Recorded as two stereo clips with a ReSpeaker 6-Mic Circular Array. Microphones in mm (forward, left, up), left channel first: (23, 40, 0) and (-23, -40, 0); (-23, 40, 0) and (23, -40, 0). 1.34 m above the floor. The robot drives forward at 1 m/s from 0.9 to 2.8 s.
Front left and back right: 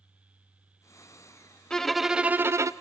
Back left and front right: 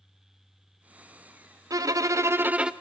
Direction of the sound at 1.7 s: 20° right.